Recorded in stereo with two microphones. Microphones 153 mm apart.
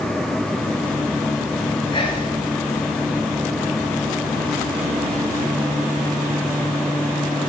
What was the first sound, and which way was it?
Whispering, 30° left (ahead or behind).